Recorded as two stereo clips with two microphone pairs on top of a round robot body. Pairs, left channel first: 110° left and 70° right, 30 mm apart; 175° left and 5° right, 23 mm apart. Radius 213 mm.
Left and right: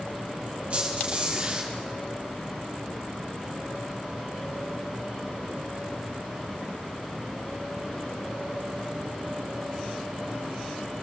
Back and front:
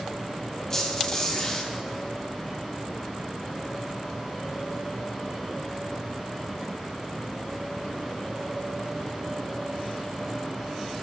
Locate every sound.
0.7 s a squeak: 120° right, 3.5 m